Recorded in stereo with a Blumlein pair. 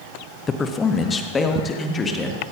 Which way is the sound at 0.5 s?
20° left.